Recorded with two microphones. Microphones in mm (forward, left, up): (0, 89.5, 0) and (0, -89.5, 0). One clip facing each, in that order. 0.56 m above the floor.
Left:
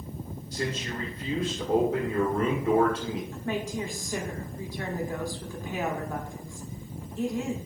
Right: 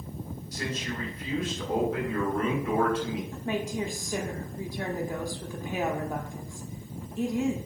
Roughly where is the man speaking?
Left.